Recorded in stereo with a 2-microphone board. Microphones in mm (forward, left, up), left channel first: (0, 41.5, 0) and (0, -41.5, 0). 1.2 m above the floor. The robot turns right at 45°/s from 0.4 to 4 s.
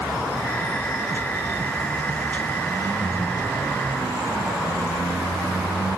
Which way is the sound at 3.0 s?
175° left.